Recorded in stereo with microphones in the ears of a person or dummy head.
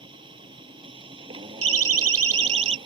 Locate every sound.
0.0 s a machine running: 30° right (ahead or behind)
1.6 s a siren: 85° right; by 2.8 s 80° right